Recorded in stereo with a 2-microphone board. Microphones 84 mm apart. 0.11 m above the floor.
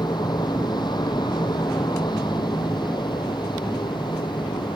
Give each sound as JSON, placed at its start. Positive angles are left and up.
{"t": 0.0, "sound": "an aircraft", "side_deg": 60}